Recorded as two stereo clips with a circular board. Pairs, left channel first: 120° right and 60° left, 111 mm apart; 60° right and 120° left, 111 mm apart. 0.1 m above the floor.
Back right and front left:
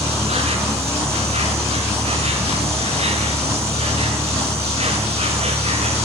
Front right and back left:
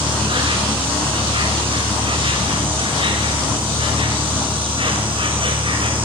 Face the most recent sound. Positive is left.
turn(degrees=80)